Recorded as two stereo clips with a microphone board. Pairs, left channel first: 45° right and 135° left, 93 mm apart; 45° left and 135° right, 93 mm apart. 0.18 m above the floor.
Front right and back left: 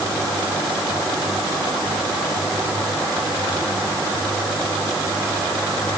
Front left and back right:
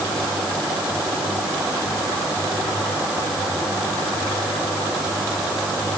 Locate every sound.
Only background noise.